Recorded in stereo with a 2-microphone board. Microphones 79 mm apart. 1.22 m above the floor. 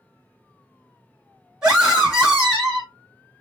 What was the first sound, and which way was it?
A scream, 10° right (ahead or behind).